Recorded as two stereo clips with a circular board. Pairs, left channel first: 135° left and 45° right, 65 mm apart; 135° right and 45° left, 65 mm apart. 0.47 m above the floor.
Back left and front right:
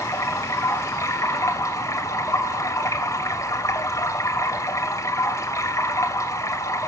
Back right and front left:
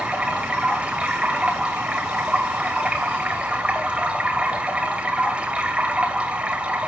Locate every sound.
0.0 s running water: 115° left, 2 m